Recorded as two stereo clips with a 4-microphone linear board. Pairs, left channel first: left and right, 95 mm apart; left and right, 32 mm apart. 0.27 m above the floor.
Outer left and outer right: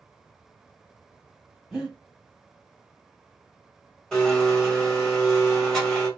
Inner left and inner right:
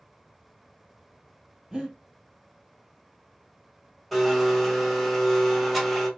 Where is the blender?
5° left (ahead or behind), 1.6 m.